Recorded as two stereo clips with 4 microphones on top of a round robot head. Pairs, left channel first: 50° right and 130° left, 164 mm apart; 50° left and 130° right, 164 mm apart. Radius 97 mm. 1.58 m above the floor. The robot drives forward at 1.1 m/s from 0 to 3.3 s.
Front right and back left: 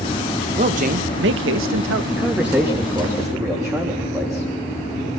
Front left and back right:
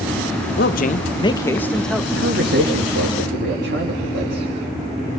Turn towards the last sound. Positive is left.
turn(degrees=-155)